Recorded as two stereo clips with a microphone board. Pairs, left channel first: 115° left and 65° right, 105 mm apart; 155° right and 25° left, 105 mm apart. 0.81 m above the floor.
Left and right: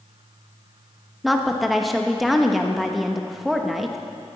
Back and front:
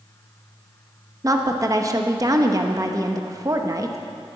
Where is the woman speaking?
20° left, 1.0 m.